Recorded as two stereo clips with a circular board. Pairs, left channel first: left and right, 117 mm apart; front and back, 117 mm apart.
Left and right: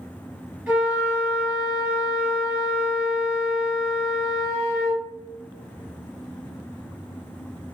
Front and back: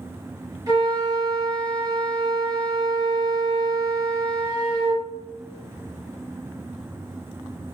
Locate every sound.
0.7 s a flute: 165° right, 1.9 m